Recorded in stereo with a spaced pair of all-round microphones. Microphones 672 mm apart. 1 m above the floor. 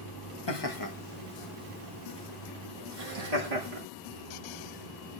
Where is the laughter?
40° left (ahead or behind), 1.3 m; by 3.8 s 75° right (ahead or behind), 2 m.